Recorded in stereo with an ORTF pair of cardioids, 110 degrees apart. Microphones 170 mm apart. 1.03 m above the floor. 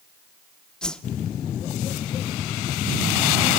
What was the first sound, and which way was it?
A whoosh, 5° left.